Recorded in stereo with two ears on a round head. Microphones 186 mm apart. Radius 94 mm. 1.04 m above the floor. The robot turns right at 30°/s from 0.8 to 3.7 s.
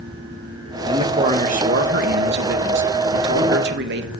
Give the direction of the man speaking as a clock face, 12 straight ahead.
5 o'clock.